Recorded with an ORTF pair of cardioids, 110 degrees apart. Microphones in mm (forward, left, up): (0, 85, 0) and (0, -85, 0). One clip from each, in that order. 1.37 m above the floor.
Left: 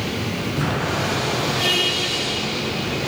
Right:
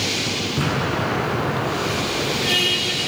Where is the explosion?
25° right, 6 m.